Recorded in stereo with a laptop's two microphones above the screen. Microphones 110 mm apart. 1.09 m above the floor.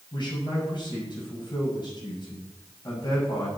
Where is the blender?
I don't hear a blender.